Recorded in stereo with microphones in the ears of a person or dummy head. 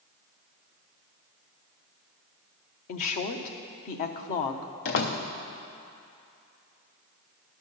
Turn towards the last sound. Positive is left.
turn(degrees=45)  # may be behind; listen again after turning